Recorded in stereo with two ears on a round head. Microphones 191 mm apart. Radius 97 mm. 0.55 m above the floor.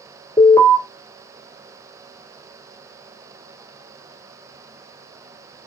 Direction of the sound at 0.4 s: 15° left (ahead or behind).